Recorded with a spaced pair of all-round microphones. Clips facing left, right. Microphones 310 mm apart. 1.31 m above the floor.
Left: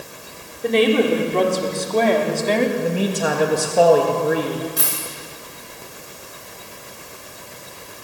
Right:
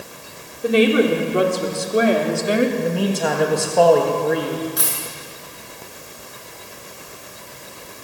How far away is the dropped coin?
About 8.5 m.